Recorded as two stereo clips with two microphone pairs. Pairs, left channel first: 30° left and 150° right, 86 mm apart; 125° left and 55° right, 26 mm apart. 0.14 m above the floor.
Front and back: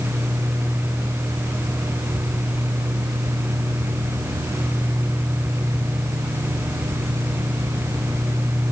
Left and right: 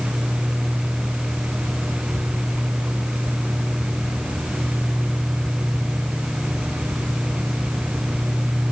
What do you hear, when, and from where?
Only background noise.